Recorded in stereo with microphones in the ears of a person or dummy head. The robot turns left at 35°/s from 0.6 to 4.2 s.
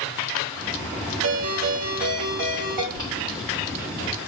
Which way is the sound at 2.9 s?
45° right (ahead or behind).